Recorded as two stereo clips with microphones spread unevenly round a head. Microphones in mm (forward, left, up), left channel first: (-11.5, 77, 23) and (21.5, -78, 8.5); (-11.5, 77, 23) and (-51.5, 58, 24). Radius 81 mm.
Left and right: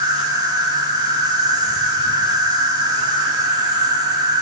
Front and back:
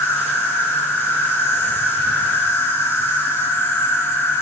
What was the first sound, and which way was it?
An insect, 15° right.